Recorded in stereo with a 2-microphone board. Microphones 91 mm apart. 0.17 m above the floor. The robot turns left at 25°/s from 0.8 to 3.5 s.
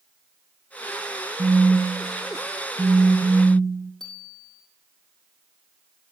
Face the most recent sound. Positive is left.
turn(degrees=5)  # may be behind; listen again after turning